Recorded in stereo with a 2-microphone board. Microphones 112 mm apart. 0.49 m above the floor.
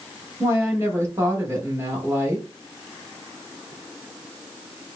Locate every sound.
0.4 s a woman speaking: 25° right (ahead or behind), 1.1 m